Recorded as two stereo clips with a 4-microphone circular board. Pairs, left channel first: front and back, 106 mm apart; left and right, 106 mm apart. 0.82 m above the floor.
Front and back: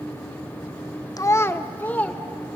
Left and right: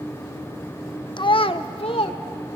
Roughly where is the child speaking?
Ahead left.